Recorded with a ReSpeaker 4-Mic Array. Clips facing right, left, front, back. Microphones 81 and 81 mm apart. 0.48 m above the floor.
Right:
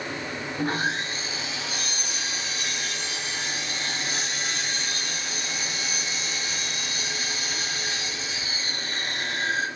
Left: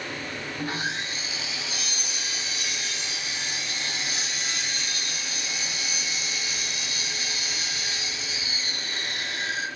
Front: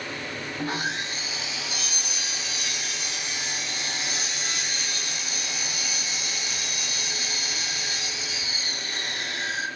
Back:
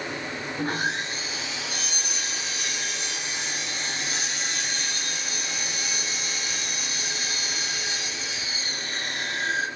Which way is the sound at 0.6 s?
140° right.